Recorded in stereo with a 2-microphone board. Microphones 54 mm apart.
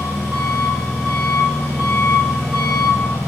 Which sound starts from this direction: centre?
An engine running, at 0.0 s.